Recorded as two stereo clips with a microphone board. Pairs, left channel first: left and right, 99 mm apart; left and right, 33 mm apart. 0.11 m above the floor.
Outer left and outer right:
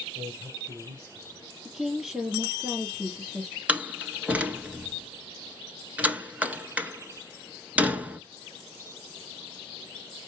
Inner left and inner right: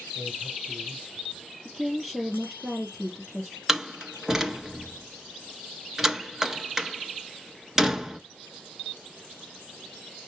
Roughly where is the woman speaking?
Centre.